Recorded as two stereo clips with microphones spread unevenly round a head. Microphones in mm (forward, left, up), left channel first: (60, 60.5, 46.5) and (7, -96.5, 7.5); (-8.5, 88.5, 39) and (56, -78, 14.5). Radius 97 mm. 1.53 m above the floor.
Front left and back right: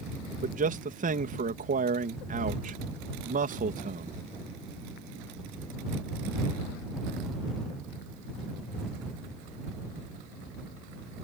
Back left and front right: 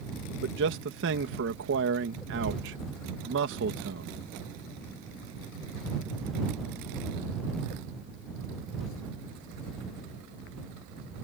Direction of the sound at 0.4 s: 70° right.